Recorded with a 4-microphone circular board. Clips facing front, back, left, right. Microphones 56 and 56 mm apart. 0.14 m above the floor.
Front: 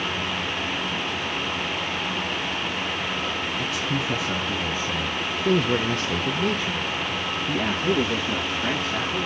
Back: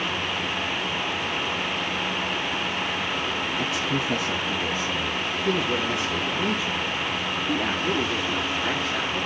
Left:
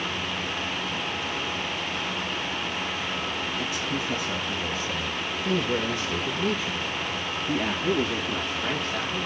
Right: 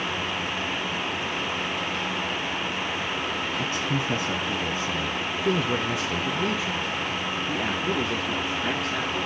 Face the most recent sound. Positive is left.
turn(degrees=0)